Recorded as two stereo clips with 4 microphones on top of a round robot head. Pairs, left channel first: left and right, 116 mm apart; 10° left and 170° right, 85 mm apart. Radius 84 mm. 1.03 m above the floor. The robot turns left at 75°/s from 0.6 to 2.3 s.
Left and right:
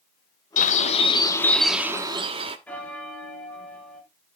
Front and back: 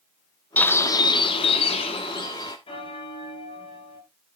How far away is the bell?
About 2.5 m.